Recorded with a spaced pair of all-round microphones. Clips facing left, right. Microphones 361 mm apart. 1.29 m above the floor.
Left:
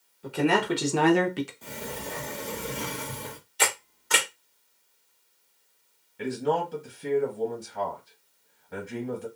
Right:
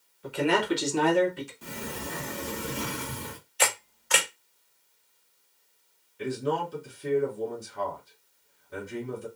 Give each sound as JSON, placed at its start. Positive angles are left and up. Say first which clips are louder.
{"t": 0.2, "sound": "a man speaking", "louder": "left 1 dB", "side_deg": 55, "distance_m": 1.4}
{"t": 1.6, "sound": "a sliding door", "louder": "even", "side_deg": -20, "distance_m": 0.7}
{"t": 3.6, "sound": "a camera shutter", "louder": "even", "side_deg": 50, "distance_m": 1.4}
{"t": 6.2, "sound": "a man speaking", "louder": "left 2 dB", "side_deg": 70, "distance_m": 1.5}